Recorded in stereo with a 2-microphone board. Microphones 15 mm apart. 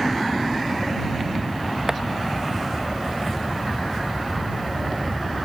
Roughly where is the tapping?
Right.